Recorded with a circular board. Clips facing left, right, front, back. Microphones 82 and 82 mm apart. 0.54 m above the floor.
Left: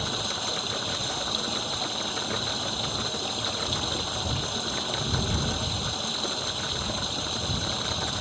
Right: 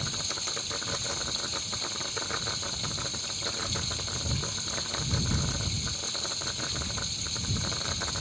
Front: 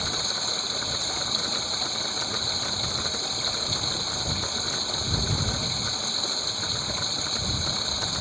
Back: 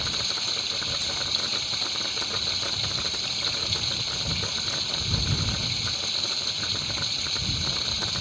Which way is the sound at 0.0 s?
60° left.